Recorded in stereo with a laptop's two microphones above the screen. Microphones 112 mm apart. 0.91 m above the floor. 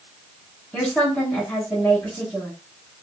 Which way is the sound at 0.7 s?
5° left (ahead or behind).